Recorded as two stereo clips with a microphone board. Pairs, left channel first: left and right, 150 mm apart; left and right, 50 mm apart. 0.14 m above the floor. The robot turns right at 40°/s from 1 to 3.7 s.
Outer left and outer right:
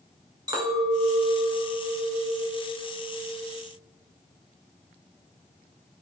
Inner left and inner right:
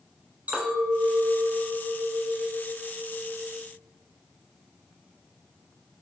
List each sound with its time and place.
0.5 s a clink: 55° right, 0.7 m; by 3.6 s 45° left, 0.7 m